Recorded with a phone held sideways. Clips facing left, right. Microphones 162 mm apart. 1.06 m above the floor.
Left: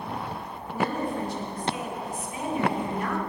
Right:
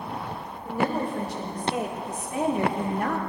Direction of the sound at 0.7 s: 80° right.